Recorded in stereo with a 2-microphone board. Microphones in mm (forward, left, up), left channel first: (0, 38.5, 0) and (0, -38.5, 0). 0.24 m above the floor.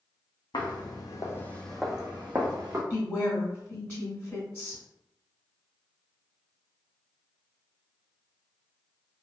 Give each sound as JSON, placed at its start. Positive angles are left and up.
{"t": 0.5, "sound": "footsteps", "side_deg": 70, "distance_m": 0.9}
{"t": 2.9, "sound": "a woman speaking", "side_deg": 15, "distance_m": 1.2}